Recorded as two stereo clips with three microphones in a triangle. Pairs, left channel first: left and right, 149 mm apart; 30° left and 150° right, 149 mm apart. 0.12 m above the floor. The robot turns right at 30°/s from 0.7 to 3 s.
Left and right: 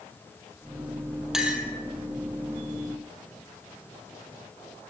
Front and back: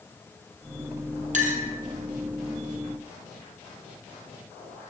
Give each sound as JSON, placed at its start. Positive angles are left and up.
{"t": 1.3, "sound": "a clink", "azimuth_deg": -175, "distance_m": 1.8}